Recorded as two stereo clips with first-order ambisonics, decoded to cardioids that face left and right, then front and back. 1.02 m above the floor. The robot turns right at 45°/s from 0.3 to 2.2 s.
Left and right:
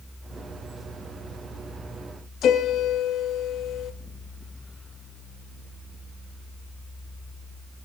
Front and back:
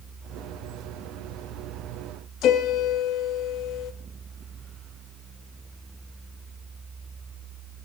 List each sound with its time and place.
2.4 s a piano: 40° left, 1.5 m